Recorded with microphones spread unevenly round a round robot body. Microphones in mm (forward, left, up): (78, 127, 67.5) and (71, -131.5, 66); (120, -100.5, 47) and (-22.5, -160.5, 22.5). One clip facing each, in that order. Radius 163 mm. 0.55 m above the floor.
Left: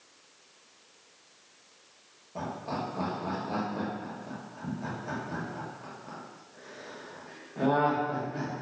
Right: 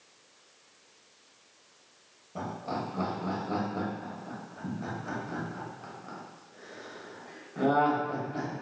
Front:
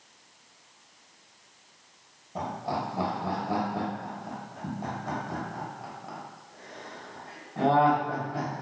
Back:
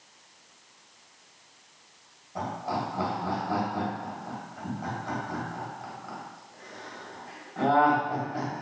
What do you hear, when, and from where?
2.4 s laughter: 35° right, 1.3 m